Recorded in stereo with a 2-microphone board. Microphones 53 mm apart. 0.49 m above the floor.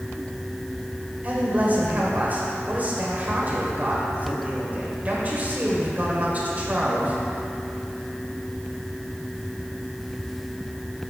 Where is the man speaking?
35° right (ahead or behind), 1.8 m.